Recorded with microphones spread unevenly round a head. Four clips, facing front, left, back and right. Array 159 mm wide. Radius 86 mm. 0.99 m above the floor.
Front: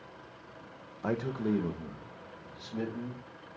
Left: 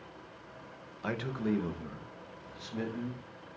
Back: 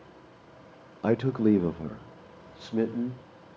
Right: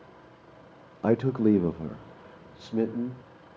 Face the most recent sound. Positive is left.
turn(degrees=-135)